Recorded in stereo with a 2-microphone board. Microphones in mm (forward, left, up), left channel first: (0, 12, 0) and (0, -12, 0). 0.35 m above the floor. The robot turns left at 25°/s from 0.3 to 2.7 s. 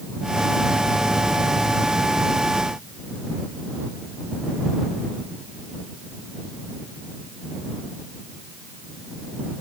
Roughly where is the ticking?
No ticking in this recording.